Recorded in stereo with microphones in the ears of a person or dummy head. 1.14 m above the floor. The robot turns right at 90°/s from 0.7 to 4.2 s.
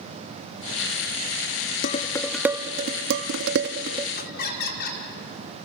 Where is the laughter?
55° left (ahead or behind), 2.5 m; by 5.0 s 50° left (ahead or behind), 2.5 m.